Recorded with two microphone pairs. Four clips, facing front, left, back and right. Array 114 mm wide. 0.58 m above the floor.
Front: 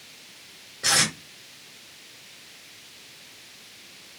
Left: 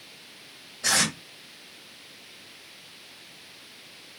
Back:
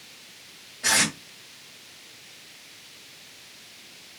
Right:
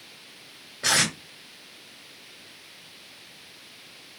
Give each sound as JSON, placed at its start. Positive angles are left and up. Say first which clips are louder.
{"t": 0.8, "sound": "tape being pulled", "louder": "right 1 dB, back 1 dB", "azimuth_deg": -70, "distance_m": 2.0}